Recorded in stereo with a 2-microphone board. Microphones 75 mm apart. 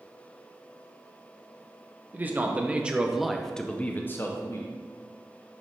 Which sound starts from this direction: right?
A man speaking, at 2.1 s.